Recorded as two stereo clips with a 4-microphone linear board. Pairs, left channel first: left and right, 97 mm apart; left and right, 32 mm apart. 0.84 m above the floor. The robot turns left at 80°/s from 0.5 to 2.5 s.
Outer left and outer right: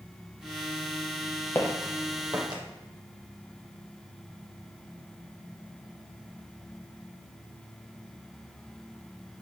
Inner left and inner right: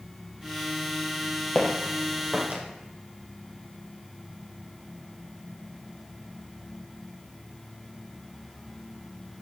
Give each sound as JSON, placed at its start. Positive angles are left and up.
{"t": 1.6, "sound": "footsteps", "side_deg": 20, "distance_m": 1.3}